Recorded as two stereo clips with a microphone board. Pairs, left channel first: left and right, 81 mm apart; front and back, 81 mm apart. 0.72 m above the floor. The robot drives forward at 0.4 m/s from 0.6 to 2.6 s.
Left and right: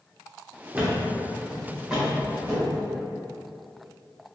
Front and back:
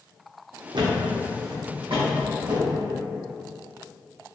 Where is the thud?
160° right, 0.5 m; by 2.8 s 170° right, 1.2 m.